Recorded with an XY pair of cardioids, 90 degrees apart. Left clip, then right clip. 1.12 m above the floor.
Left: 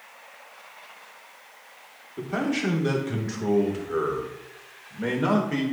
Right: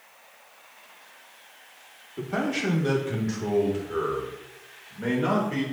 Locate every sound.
2.2 s a man speaking: 5° left, 2.5 m; by 5.6 s 35° left, 3.5 m